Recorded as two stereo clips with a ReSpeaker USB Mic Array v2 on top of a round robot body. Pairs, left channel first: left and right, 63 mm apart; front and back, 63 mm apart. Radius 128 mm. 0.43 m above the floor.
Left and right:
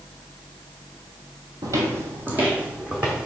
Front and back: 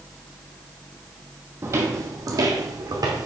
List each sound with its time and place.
1.6 s footsteps: 130° right, 0.7 m; by 3.3 s 165° right, 1.4 m